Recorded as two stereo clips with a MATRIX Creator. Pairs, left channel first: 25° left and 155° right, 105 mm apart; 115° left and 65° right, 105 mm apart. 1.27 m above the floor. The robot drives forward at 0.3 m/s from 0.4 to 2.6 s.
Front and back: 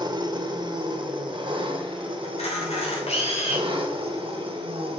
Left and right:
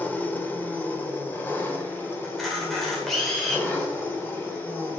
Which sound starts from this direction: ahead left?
A camera shutter, at 2.2 s.